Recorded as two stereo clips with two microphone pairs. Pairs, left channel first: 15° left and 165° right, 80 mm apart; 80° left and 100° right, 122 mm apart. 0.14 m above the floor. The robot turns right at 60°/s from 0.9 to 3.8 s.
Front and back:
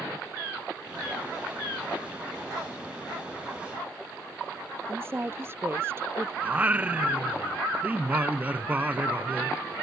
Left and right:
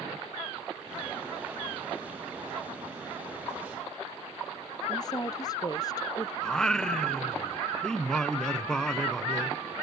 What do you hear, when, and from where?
4.9 s a woman speaking: 135° left
6.4 s singing: 155° left